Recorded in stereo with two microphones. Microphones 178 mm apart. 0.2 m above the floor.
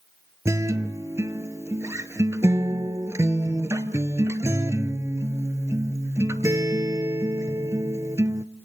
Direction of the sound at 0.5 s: 15° right (ahead or behind).